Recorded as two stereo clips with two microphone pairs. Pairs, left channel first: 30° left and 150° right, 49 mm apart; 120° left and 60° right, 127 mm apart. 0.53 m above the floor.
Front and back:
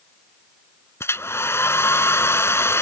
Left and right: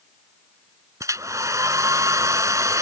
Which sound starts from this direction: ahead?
A hair dryer, at 1.0 s.